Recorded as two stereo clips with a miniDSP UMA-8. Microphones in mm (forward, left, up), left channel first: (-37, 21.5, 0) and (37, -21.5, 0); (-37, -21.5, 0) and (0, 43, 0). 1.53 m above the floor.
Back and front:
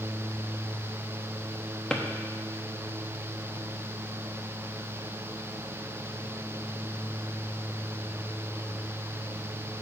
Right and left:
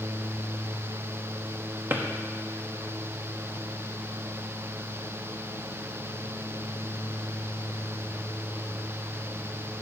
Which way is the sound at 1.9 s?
80° left.